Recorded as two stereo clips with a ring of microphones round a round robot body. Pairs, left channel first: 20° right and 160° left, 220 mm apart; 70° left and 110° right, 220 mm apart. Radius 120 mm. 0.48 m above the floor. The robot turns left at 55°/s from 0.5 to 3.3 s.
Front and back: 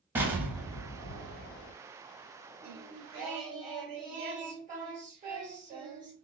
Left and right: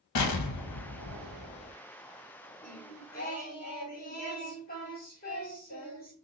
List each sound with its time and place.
0.1 s an explosion: 75° left, 0.6 m; by 1.7 s 10° left, 0.6 m
2.6 s singing: 145° left, 2.5 m; by 6.1 s 110° left, 2.5 m